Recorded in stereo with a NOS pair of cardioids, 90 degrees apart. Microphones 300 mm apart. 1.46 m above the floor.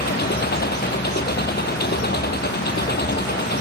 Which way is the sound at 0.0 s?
35° left.